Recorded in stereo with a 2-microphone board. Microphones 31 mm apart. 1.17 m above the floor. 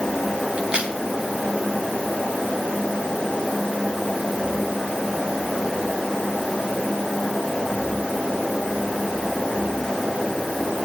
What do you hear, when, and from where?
0.6 s a crack: 35° right (ahead or behind), 3 m